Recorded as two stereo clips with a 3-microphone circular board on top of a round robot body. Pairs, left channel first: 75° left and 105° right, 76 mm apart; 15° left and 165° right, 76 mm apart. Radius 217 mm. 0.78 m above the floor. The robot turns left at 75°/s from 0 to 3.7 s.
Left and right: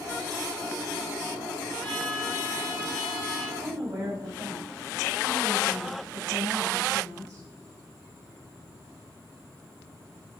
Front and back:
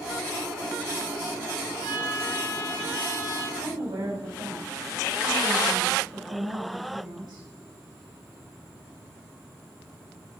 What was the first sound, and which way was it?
A trumpet, 10° right.